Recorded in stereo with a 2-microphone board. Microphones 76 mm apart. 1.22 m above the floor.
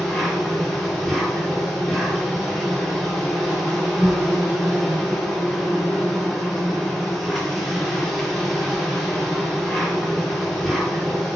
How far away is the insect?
About 1.2 m.